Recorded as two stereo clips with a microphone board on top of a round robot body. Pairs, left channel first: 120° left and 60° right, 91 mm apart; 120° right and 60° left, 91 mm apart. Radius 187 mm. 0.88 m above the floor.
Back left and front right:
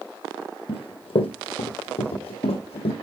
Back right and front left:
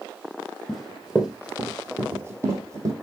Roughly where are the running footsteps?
Behind left.